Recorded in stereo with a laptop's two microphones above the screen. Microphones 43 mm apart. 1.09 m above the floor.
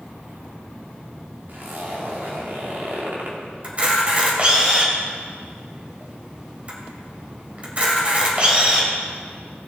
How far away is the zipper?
About 2 m.